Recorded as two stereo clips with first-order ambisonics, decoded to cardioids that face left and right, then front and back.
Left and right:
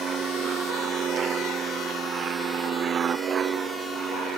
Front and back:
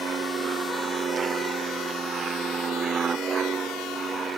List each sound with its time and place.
0.0 s an aircraft: 130° right